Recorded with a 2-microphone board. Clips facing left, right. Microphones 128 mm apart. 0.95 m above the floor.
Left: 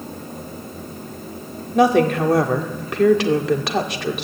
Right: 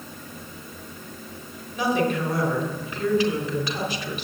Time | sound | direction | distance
1.7 | a woman speaking | 70° left (ahead or behind) | 2.5 m